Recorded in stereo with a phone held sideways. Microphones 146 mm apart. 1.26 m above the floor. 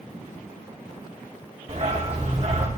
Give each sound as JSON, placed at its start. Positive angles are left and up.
{"t": 1.7, "sound": "a dog barking", "side_deg": -45, "distance_m": 2.0}